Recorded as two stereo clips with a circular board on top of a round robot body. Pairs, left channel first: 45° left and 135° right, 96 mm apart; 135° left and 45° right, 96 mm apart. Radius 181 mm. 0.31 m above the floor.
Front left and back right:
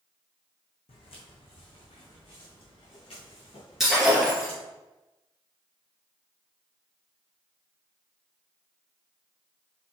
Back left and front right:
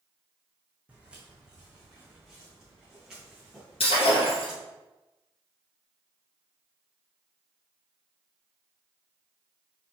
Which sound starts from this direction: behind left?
Breaking glass, at 3.8 s.